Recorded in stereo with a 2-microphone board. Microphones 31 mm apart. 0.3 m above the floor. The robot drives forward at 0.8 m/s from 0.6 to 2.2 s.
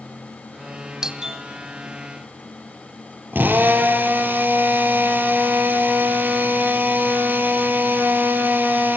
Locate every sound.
1.0 s a doorbell: 15° right (ahead or behind), 1.6 m
3.3 s a drill: 75° right (ahead or behind), 4 m